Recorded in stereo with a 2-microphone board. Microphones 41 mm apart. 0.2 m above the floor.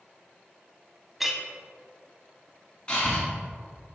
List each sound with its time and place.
1.2 s a clink: centre (ahead or behind), 0.6 m
2.9 s breathing: 25° left (ahead or behind), 1.5 m